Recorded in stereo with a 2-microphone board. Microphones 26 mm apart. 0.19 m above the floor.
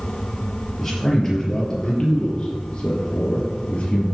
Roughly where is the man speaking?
Centre.